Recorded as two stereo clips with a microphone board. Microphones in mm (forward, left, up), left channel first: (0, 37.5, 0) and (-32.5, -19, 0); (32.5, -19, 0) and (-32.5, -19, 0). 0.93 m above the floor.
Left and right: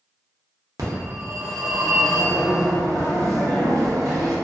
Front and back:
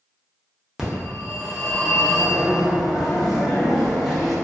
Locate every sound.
0.8 s a phone ringing: 95° right, 0.7 m